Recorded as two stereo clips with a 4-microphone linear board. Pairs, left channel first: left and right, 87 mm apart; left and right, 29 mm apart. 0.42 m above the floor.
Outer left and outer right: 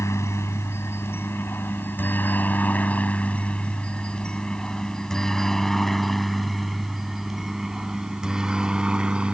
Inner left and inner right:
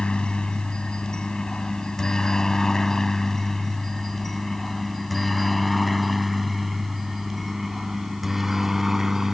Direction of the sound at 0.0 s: 35° left (ahead or behind).